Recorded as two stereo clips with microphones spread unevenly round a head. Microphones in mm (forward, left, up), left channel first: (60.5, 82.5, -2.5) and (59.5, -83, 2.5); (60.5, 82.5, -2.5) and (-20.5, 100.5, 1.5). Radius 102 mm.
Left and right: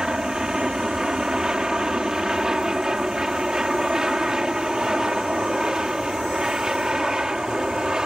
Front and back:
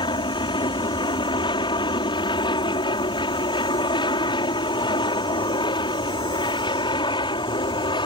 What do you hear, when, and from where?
0.0 s an aircraft: 5° right